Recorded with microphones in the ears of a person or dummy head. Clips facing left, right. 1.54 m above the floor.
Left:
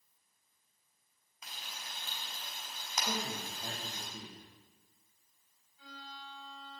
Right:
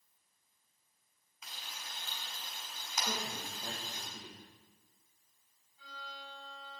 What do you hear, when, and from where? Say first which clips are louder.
1.4 s frying: left 1 dB; 50° left (ahead or behind), 4.5 m
3.1 s a man speaking: left 3 dB; 5° left (ahead or behind), 2 m
5.8 s a violin: even; 45° right (ahead or behind), 3 m